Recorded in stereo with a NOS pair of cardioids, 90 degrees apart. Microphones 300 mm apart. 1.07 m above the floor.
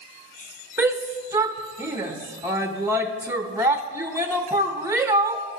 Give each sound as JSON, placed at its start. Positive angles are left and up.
{"t": 0.8, "sound": "a shout", "azimuth_deg": -10, "distance_m": 0.8}